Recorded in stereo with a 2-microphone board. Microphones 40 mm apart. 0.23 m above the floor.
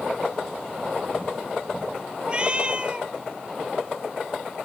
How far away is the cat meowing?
About 0.8 m.